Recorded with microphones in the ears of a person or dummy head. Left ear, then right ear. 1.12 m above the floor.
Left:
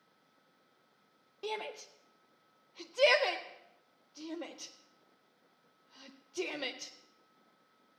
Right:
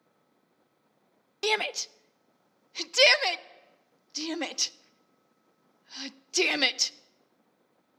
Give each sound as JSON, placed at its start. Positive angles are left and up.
{"t": 1.4, "sound": "a shout", "side_deg": -65, "distance_m": 0.6}